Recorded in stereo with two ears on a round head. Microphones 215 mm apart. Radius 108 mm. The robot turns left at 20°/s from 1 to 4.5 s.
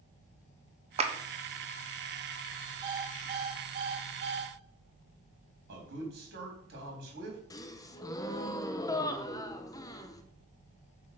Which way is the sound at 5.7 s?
45° right (ahead or behind).